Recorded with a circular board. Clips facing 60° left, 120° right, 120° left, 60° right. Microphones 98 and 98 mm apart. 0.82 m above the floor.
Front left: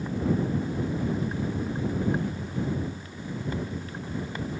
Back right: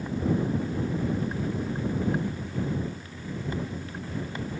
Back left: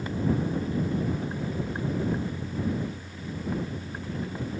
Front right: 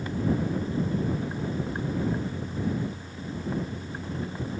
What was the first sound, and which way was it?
Only background noise.